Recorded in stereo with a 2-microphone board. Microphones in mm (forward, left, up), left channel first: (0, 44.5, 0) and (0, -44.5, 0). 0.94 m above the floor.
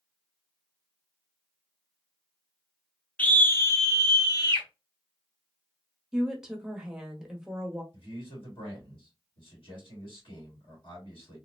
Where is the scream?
15° left (ahead or behind), 0.7 m; by 4.7 s 50° left (ahead or behind), 1.2 m.